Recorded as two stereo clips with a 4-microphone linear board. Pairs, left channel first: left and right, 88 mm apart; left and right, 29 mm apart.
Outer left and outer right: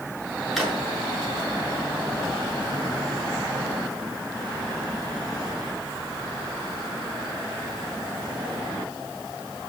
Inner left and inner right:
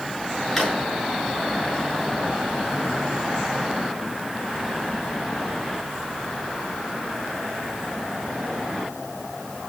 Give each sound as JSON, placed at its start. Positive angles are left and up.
{"t": 0.6, "sound": "a drawer", "side_deg": 0, "distance_m": 6.5}